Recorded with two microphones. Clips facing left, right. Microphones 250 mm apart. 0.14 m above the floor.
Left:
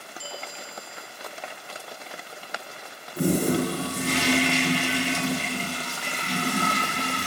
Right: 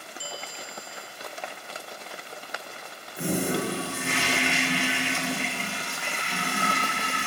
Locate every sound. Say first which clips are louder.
0.2 s a bell: left 1 dB; 40° right (ahead or behind), 1.1 m
3.2 s a toilet flushing: left 5 dB; 40° left (ahead or behind), 0.7 m